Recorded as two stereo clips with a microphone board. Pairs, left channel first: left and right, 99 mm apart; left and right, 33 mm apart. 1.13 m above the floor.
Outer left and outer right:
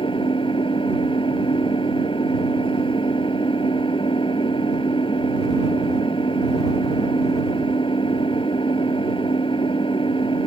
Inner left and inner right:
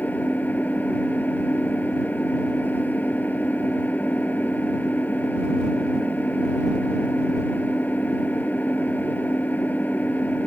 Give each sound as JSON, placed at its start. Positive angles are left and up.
{"t": 0.0, "sound": "an engine running", "side_deg": 60}